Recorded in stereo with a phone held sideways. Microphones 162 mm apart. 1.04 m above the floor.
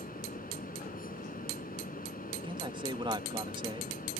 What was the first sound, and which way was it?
A fan, 60° left (ahead or behind).